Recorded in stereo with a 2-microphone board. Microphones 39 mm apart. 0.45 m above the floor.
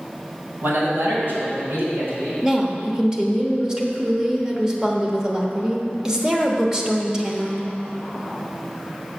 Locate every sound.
0.6 s a man speaking: 65° right (ahead or behind), 3 m; by 2.3 s 80° right, 5 m
2.4 s a woman speaking: 20° right (ahead or behind), 1.1 m